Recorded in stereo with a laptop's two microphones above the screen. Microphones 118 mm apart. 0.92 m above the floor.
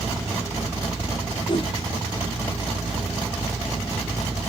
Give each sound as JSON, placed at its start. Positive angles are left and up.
{"t": 1.5, "sound": "a whoosh", "side_deg": 45, "distance_m": 0.6}